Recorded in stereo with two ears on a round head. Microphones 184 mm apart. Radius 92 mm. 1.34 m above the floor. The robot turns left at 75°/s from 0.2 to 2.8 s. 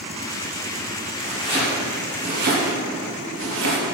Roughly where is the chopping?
Left.